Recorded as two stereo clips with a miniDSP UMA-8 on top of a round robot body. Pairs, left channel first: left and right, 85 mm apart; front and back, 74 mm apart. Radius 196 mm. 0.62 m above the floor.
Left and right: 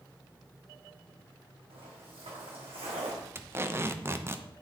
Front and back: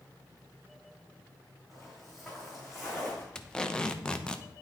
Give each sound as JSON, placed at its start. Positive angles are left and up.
{"t": 1.7, "sound": "footsteps", "azimuth_deg": -90, "distance_m": 2.5}
{"t": 3.4, "sound": "tape being pulled", "azimuth_deg": -70, "distance_m": 0.9}